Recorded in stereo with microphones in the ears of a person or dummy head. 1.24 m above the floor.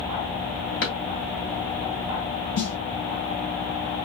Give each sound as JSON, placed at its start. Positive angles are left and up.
{"t": 0.8, "sound": "a drawer", "side_deg": 60, "distance_m": 1.8}
{"t": 2.6, "sound": "a snare drum", "side_deg": 60, "distance_m": 1.3}